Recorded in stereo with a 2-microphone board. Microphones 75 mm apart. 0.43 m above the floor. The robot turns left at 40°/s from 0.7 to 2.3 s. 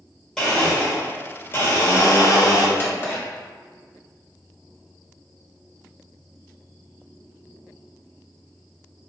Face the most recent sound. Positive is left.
turn(degrees=30)  # may be behind; listen again after turning